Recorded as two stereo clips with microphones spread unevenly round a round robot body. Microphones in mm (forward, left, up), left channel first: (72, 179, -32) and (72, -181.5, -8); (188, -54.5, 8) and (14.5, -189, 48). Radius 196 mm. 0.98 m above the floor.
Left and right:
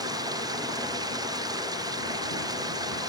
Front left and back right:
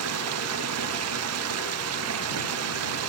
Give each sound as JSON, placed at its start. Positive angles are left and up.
{"t": 0.0, "sound": "running water", "azimuth_deg": -170}